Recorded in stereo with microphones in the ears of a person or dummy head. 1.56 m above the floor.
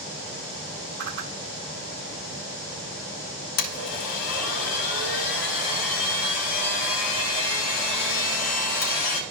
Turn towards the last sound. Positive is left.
turn(degrees=70)  # may be behind; listen again after turning